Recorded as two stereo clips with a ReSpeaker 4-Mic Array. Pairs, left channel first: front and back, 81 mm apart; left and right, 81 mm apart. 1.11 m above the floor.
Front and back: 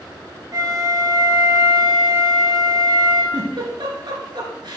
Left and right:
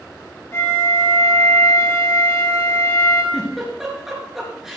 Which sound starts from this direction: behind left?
A flute, at 0.5 s.